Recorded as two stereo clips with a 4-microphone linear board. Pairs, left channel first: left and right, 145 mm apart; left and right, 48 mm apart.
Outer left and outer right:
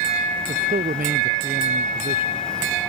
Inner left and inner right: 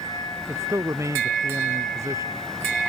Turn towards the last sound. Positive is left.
turn(degrees=-80)